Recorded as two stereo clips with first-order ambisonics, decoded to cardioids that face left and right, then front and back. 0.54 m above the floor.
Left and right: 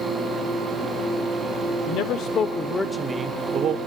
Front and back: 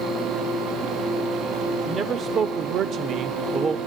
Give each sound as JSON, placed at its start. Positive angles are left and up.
{"t": 1.9, "sound": "a man speaking", "azimuth_deg": 115, "distance_m": 1.3}